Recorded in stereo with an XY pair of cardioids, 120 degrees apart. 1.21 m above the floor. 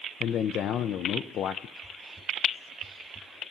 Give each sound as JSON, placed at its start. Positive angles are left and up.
{"t": 0.2, "sound": "a man speaking", "azimuth_deg": 60, "distance_m": 0.6}
{"t": 1.8, "sound": "whispering", "azimuth_deg": -20, "distance_m": 0.6}